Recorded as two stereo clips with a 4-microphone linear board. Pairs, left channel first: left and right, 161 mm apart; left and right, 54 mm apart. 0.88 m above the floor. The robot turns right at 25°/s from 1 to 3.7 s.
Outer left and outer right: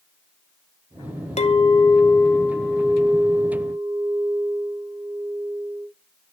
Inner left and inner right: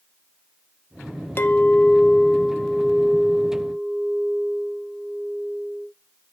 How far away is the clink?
About 0.5 m.